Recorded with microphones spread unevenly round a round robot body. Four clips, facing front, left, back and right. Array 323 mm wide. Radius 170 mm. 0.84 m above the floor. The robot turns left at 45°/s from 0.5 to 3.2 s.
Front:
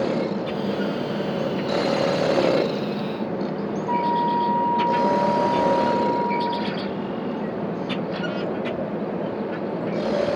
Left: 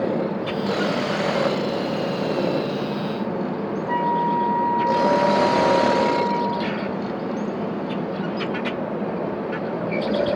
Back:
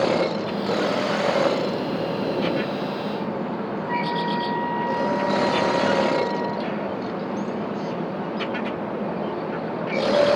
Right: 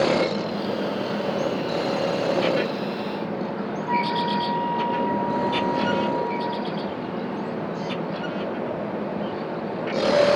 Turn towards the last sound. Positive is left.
turn(degrees=40)